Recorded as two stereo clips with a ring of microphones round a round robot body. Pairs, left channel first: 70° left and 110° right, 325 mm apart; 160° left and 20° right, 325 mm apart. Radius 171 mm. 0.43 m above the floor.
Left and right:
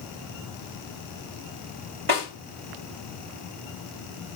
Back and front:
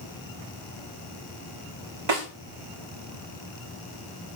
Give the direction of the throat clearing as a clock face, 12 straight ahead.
No throat clearing in this recording.